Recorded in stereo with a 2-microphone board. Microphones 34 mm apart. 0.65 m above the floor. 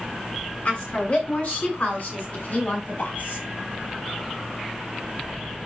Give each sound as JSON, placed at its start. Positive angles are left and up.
{"t": 0.7, "sound": "a woman speaking", "side_deg": 45, "distance_m": 7.0}